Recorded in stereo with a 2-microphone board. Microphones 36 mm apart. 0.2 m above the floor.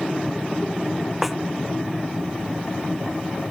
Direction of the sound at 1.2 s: Centre (ahead or behind).